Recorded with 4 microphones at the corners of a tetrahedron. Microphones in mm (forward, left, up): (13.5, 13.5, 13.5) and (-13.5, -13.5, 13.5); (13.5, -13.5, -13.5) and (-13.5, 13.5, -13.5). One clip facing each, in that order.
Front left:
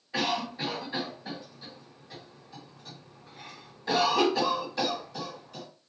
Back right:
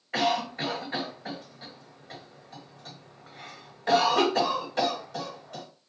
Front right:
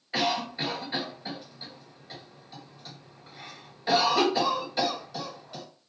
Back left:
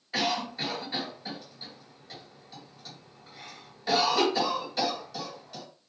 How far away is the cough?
About 1.8 m.